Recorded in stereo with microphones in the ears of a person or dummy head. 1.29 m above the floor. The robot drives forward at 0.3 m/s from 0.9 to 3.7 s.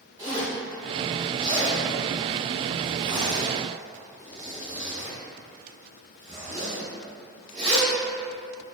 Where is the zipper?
20° right (ahead or behind), 1.4 m; by 7.9 s 30° right (ahead or behind), 1.0 m.